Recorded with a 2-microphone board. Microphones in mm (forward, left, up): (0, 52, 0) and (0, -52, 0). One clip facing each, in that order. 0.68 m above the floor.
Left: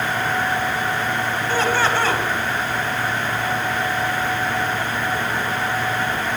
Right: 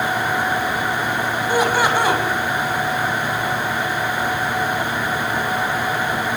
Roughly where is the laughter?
Centre.